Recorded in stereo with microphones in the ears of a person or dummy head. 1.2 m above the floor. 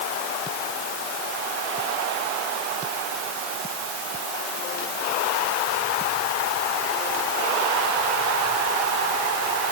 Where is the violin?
No violin in this recording.